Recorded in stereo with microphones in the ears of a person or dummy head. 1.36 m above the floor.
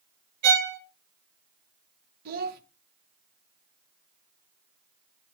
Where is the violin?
65° right (ahead or behind), 0.8 m.